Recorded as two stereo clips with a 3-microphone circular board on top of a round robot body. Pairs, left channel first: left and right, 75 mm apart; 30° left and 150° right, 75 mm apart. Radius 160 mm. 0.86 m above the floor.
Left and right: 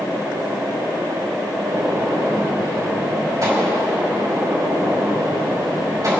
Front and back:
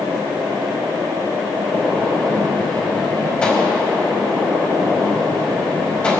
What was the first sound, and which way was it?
A gunshot, 45° right.